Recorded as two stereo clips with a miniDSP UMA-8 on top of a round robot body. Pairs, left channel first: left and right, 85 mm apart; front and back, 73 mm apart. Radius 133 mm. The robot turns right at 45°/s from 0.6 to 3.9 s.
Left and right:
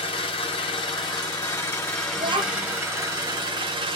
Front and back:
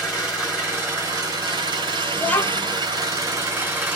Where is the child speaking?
75° right, 1.1 m; by 2.8 s 50° right, 1.1 m.